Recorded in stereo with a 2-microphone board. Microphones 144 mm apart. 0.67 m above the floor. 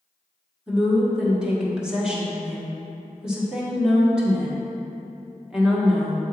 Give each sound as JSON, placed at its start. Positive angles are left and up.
{"t": 0.7, "sound": "a woman speaking", "side_deg": -5, "distance_m": 1.4}